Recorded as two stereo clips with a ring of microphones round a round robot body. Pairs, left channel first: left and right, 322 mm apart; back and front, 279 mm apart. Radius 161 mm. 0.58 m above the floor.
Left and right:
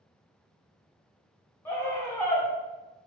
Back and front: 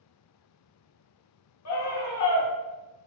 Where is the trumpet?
No trumpet in this recording.